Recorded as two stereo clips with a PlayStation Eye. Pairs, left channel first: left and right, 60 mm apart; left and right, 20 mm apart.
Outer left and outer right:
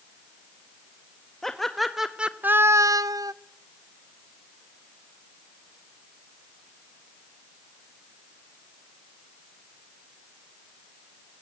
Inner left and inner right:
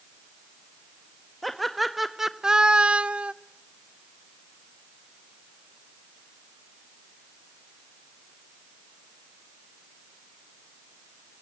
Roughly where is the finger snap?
No finger snap in this recording.